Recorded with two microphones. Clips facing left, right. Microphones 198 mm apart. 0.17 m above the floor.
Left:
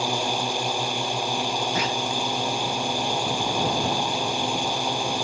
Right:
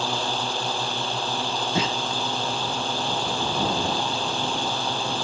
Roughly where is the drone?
Centre.